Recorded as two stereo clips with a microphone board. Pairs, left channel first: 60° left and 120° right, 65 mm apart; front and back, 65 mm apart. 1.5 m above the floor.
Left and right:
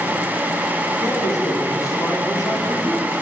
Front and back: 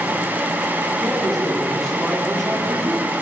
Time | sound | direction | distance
1.0 | a man speaking | 80° left | 4.5 m